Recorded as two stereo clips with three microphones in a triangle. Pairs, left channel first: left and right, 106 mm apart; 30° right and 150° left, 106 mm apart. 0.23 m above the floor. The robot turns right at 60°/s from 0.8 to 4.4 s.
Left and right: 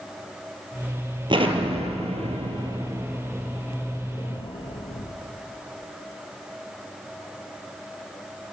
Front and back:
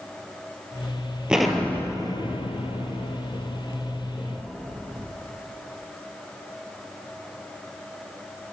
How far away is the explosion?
About 0.9 m.